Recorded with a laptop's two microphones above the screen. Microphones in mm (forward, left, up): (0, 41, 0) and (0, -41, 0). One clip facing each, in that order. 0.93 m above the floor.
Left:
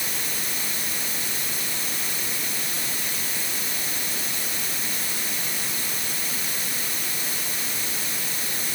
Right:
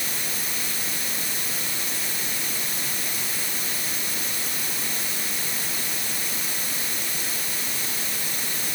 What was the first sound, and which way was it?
Only background noise.